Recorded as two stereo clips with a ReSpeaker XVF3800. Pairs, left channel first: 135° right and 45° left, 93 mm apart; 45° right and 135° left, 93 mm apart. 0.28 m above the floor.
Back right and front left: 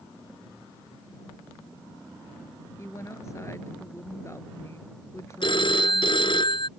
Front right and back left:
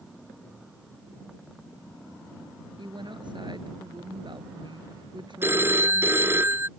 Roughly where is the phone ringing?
Behind.